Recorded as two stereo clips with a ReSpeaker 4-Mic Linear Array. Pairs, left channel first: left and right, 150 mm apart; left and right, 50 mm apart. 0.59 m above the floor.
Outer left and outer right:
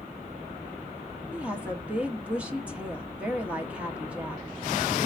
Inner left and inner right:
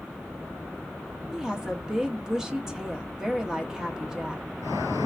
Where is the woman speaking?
10° right (ahead or behind), 0.9 m.